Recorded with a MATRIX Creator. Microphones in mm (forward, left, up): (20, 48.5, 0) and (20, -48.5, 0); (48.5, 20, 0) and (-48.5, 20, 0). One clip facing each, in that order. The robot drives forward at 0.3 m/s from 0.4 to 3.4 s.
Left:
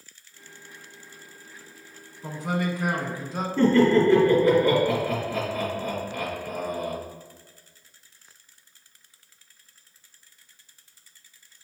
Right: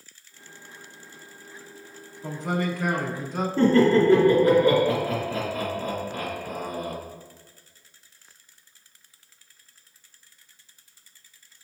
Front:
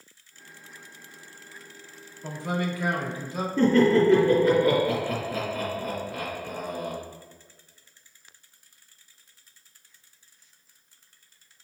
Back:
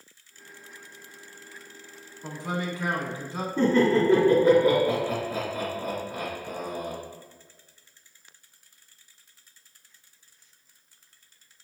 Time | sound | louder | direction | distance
2.2 | a man speaking | even, front 2 dB | 155° left | 1.0 m
3.6 | laughter | even, front 2 dB | 155° right | 1.7 m